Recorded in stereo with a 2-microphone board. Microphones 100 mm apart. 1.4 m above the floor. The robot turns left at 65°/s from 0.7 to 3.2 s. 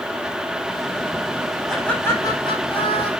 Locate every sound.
1.7 s laughter: straight behind, 5 m; by 3.1 s 85° left, 5 m